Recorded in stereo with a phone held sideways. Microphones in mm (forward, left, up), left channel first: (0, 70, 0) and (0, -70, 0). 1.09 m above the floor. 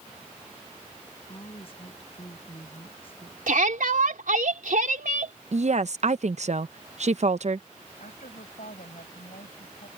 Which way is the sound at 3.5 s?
75° right (ahead or behind).